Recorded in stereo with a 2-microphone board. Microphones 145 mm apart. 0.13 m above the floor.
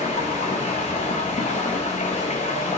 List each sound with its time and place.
0.0 s running water: 50° left (ahead or behind), 2 m